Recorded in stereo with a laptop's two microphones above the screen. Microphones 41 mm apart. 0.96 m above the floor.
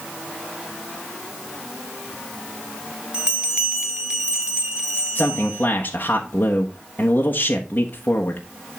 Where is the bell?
20° right (ahead or behind), 1.8 m.